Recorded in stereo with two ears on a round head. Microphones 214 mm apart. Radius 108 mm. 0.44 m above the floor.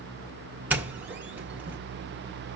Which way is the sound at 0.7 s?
5° right (ahead or behind).